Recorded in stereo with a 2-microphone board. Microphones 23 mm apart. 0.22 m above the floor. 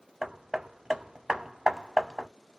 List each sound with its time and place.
0.2 s hammering: 25° right (ahead or behind), 0.6 m